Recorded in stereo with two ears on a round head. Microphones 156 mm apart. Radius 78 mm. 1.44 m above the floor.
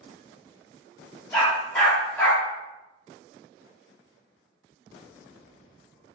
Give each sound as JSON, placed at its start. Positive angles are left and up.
{"t": 1.3, "sound": "a dog barking", "side_deg": 10, "distance_m": 1.4}